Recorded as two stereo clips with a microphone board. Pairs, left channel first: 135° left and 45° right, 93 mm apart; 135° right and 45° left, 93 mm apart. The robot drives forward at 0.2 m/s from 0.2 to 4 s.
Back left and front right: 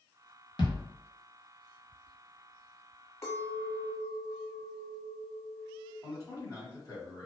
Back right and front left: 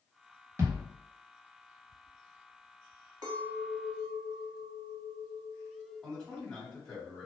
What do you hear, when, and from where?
0.6 s a thud: 105° left, 1.1 m; by 0.9 s 110° left, 1.2 m
3.2 s a clink: 80° left, 1.0 m; by 5.9 s 90° left, 0.9 m
6.0 s a man speaking: 145° left, 1.2 m